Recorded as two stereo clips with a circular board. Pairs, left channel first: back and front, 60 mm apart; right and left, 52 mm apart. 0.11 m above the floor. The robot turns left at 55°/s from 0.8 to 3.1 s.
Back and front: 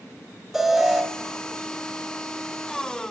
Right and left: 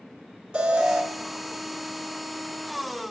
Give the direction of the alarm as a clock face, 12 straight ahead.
10 o'clock.